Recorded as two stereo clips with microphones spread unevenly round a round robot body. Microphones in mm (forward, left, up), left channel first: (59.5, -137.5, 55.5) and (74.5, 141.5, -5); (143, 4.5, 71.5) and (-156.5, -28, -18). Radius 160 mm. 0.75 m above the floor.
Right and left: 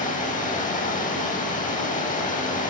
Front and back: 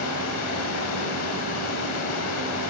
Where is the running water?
30° right, 1.7 m.